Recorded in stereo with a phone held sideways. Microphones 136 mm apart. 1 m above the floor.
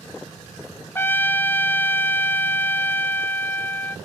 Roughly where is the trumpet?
Centre.